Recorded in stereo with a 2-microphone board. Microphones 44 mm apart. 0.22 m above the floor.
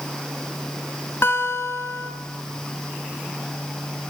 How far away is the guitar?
About 0.7 m.